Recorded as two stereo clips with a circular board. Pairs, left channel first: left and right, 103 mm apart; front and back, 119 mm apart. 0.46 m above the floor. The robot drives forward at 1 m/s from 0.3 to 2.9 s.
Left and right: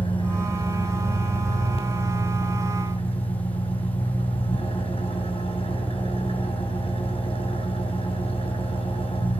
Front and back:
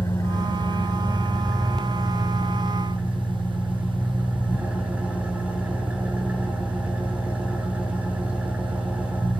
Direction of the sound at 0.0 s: 60° left.